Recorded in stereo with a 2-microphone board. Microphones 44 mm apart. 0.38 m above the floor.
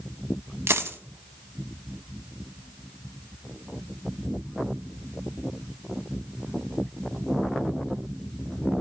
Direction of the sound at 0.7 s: 80° right.